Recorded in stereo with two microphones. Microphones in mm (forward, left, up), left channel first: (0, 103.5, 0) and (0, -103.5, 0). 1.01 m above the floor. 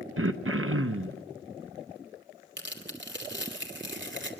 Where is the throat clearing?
85° right, 0.7 m.